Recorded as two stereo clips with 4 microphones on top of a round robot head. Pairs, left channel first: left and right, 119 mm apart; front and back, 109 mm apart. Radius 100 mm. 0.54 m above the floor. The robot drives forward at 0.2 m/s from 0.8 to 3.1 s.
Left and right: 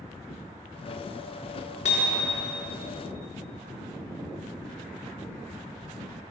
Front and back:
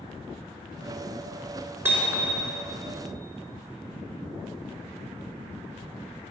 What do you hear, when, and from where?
1.9 s hammering: 110° left, 4 m